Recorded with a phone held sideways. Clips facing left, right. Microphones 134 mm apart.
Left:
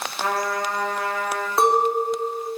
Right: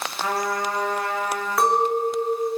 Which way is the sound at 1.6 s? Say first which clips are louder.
Left 1 dB; 25° left (ahead or behind).